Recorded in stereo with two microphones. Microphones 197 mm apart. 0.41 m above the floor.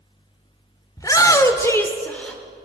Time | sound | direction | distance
1.0 | a shout | 15° left (ahead or behind) | 1.1 m